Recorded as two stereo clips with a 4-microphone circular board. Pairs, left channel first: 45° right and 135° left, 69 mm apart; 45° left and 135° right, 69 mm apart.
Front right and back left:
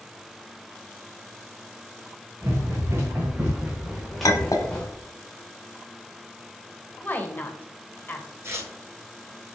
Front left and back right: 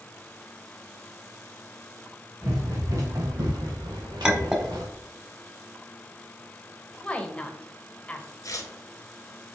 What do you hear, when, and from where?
2.4 s running footsteps: straight behind, 3 m; by 4.9 s 110° right, 2 m
4.2 s a clink: 60° right, 1.0 m
7.0 s a woman speaking: 10° right, 1.1 m
8.4 s tearing paper: 85° left, 1.3 m